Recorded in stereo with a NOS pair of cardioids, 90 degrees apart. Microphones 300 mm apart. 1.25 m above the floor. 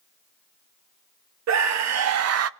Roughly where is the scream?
Right.